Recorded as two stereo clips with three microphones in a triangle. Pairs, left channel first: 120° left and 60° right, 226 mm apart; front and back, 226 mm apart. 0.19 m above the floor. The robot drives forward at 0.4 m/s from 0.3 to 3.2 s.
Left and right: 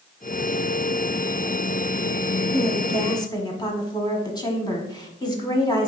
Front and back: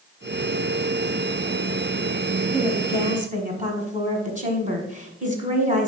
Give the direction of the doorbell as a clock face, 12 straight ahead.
No doorbell in this recording.